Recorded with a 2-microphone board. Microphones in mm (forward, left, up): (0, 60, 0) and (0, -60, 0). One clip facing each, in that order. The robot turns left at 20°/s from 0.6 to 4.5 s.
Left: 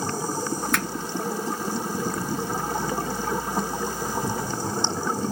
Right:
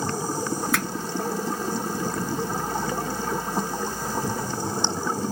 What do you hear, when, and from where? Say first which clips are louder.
0.7 s a finger snap: left 1 dB; 5° right (ahead or behind), 1.2 m; by 0.8 s centre (ahead or behind), 1.2 m